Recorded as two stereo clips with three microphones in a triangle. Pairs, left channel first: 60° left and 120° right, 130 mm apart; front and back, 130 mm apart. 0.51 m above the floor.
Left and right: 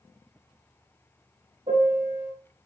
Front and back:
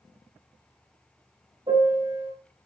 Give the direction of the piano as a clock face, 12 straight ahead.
5 o'clock.